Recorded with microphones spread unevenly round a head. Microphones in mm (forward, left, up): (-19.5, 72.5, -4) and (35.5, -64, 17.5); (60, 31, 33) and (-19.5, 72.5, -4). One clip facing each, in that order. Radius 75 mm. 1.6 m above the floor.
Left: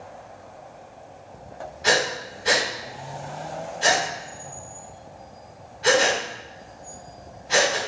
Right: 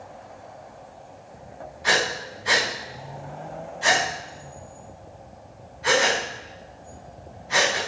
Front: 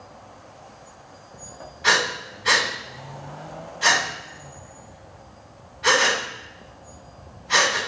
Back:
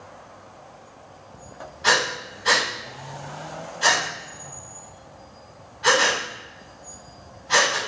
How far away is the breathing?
About 6 m.